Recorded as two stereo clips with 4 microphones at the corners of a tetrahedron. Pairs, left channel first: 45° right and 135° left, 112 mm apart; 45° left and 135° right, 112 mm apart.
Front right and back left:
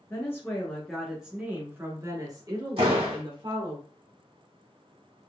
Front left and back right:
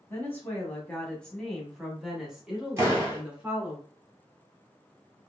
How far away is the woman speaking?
About 1.4 m.